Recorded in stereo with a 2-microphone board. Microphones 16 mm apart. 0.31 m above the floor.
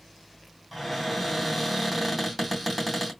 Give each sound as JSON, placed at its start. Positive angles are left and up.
{"t": 0.7, "sound": "a cupboard door", "side_deg": -5, "distance_m": 2.5}